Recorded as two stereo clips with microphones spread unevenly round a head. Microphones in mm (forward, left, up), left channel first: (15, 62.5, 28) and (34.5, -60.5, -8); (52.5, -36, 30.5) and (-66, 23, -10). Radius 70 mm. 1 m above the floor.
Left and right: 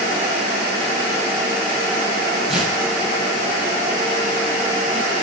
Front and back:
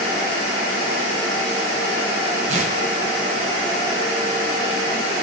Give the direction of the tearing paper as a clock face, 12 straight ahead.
6 o'clock.